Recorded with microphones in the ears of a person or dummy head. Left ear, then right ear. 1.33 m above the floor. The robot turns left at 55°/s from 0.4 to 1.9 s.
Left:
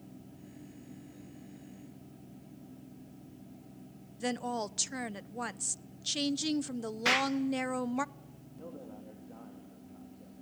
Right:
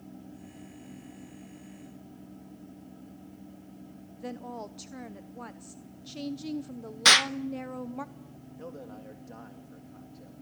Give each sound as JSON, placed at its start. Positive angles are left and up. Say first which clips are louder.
{"t": 4.2, "sound": "a woman speaking", "louder": "left 5 dB", "side_deg": 60, "distance_m": 0.7}
{"t": 7.0, "sound": "an explosion", "louder": "right 9 dB", "side_deg": -40, "distance_m": 0.6}
{"t": 8.6, "sound": "a man speaking", "louder": "right 4 dB", "side_deg": -70, "distance_m": 2.0}